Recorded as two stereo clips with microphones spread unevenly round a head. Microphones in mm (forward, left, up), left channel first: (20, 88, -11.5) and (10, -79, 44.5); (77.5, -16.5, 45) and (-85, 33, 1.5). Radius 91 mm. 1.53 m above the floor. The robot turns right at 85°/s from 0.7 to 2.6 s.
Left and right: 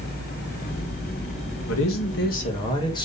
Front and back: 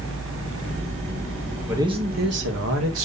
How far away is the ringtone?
No ringtone in this recording.